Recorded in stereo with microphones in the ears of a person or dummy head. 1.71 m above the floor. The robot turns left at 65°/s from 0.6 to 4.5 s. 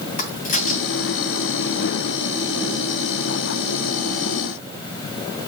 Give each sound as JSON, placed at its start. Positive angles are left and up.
{"t": 0.2, "sound": "a crack", "side_deg": 40, "distance_m": 5.0}